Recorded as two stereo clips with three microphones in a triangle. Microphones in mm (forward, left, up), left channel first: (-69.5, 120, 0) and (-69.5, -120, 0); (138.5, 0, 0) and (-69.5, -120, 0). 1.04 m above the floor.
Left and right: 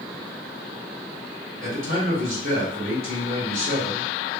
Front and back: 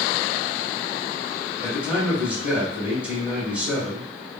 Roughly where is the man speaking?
Ahead right.